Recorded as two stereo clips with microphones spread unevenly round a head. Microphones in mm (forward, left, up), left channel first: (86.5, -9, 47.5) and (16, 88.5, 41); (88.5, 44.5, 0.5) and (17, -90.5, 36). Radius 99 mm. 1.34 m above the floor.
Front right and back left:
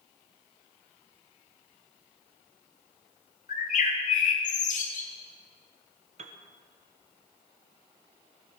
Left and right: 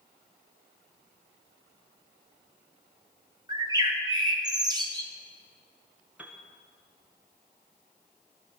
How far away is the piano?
About 1.1 m.